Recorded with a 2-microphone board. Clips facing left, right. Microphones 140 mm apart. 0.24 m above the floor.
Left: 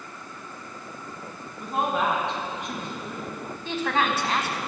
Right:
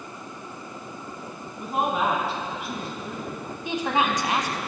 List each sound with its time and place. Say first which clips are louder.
1.6 s a woman speaking: right 1 dB; 5° right (ahead or behind), 1.9 m
3.6 s a woman speaking: right 1 dB; 15° right (ahead or behind), 1.5 m